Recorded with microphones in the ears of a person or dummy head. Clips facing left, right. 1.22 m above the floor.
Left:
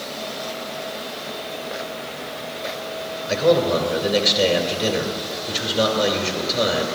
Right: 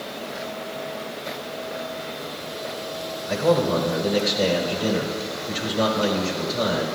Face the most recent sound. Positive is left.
turn(degrees=50)  # may be behind; listen again after turning